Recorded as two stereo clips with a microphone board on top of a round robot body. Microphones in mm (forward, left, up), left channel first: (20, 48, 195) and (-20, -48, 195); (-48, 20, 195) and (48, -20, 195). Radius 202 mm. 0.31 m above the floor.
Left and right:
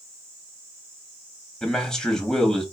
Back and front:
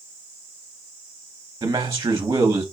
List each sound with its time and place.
1.6 s a man speaking: 10° right, 0.9 m